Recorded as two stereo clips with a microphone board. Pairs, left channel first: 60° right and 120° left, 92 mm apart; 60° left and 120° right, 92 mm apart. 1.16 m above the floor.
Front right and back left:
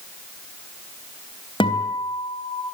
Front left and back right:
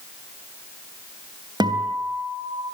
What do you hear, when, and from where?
1.6 s a guitar: 80° right, 3.5 m